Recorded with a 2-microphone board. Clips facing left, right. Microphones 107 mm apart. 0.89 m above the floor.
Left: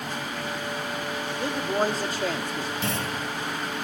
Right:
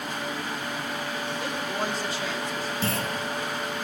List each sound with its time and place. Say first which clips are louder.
1.4 s a man speaking: left 7 dB; 30° left (ahead or behind), 1.7 m; by 2.7 s 60° left (ahead or behind), 1.8 m
2.8 s a clunk: right 3 dB; 35° right (ahead or behind), 5.5 m